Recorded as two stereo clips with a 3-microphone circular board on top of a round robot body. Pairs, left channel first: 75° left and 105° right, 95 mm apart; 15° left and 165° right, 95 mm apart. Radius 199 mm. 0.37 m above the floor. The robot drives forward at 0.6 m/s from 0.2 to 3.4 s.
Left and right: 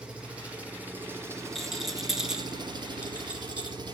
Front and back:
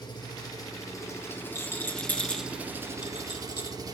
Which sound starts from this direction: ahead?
A rattle, at 1.6 s.